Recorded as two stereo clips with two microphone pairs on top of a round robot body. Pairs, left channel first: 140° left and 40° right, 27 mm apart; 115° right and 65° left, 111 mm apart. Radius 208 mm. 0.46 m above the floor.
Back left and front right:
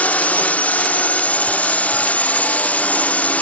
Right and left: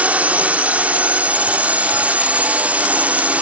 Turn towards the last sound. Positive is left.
turn(degrees=140)